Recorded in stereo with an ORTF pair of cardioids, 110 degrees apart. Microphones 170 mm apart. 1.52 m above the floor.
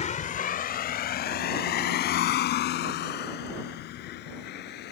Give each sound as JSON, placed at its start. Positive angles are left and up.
{"t": 0.0, "sound": "a vehicle", "azimuth_deg": 45}